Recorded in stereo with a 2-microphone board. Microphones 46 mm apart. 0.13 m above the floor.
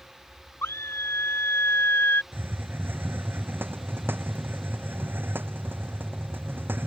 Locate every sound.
0.6 s a scream: 70° left (ahead or behind); by 2.2 s 55° left (ahead or behind)
2.3 s a hiss: 50° right (ahead or behind)